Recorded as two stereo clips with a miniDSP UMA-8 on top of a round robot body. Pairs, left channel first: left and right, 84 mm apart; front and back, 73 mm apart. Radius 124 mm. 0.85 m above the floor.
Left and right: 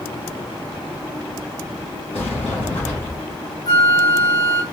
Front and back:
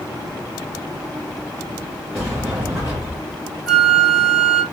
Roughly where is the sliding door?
Left.